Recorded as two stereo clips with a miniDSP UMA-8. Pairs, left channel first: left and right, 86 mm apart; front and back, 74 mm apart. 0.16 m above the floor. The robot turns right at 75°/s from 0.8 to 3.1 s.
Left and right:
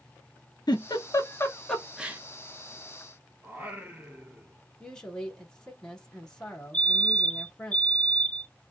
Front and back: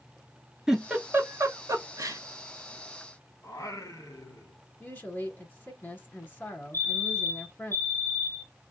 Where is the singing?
25° right, 1.5 m.